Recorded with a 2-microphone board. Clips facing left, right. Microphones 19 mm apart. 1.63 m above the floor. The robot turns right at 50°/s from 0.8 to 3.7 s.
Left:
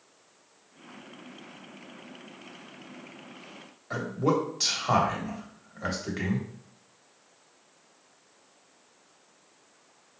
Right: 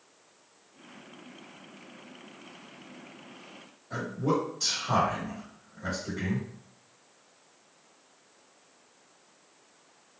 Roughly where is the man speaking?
Left.